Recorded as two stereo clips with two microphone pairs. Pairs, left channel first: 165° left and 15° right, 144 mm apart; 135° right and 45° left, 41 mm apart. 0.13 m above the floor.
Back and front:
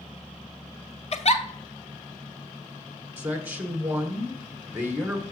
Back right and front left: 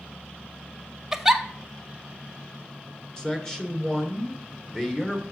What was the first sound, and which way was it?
A giggle, 125° left.